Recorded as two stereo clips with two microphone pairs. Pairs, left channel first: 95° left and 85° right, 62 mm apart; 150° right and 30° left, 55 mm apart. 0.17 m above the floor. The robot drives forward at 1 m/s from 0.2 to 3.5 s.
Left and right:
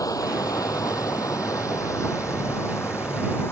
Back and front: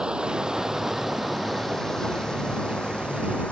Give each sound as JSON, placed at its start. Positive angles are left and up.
{"t": 0.0, "sound": "running water", "azimuth_deg": 100}